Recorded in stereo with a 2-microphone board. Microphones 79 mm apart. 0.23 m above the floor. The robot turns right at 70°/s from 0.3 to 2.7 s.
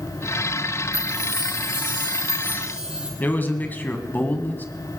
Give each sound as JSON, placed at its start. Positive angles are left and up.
{"t": 0.9, "sound": "a chime", "azimuth_deg": -135, "distance_m": 2.5}
{"t": 3.2, "sound": "a man speaking", "side_deg": 25, "distance_m": 1.5}